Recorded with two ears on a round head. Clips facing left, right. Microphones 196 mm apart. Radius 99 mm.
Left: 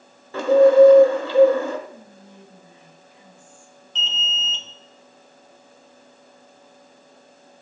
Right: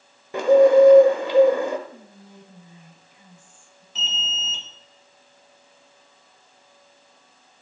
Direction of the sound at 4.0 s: 5° right (ahead or behind).